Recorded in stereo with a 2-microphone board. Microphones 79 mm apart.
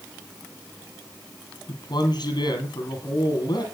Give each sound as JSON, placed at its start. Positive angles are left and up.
{"t": 1.7, "sound": "a man speaking", "side_deg": 65, "distance_m": 4.0}